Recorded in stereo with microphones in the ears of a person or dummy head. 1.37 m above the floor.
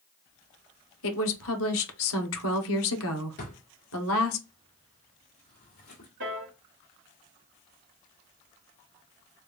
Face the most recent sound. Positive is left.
turn(degrees=-60)  # may be behind; listen again after turning